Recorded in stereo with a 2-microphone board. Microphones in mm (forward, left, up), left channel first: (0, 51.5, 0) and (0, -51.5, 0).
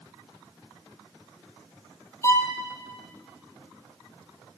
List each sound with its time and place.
2.2 s a violin: 25° left (ahead or behind), 2.5 m